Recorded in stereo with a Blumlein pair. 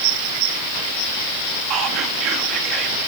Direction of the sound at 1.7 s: 35° right.